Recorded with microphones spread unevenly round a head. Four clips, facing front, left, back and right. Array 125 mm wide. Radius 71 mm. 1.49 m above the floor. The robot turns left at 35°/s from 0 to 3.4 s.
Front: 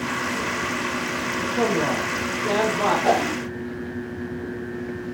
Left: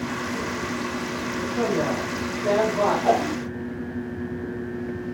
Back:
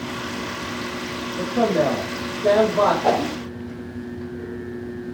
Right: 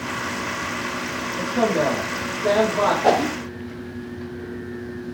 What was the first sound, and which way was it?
A man speaking, 120° right.